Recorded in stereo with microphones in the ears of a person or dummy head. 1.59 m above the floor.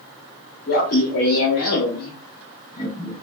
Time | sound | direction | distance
0.7 | laughter | 50° left (ahead or behind) | 0.8 m